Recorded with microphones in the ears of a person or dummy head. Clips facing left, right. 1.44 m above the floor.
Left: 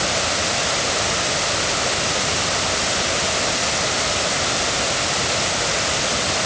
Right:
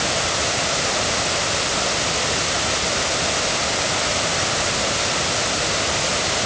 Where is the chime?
I don't hear a chime.